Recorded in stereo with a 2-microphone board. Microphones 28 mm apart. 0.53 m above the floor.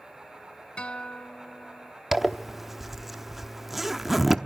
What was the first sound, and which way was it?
A guitar, 35° left (ahead or behind).